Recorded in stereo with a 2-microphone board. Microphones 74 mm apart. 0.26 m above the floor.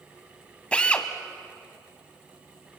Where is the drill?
15° left (ahead or behind), 1.4 m.